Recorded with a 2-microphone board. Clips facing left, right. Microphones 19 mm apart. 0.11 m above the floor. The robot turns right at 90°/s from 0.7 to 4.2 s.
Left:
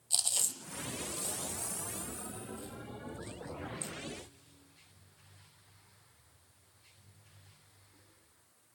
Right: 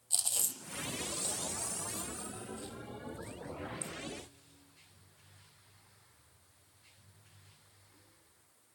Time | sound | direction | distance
0.1 | chewing | 25° left (ahead or behind) | 1.4 m